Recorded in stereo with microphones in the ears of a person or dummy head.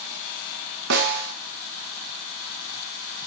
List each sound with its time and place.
0.9 s a snare drum: 65° right (ahead or behind), 1.8 m